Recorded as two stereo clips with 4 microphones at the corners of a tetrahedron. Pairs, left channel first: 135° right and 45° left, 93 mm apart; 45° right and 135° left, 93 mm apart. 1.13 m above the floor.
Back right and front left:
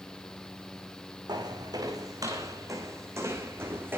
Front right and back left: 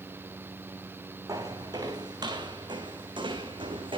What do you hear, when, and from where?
1.3 s footsteps: 85° left, 4.5 m; by 4.0 s 110° left, 4.5 m